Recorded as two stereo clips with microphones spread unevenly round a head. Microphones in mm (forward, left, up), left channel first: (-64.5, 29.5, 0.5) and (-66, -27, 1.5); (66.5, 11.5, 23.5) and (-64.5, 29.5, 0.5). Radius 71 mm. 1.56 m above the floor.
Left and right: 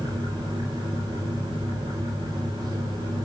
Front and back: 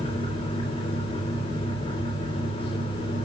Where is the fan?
65° right, 4.5 m.